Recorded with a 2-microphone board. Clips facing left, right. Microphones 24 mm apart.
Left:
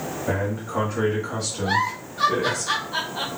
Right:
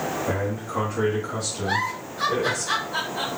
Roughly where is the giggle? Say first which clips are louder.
Left 3 dB; left.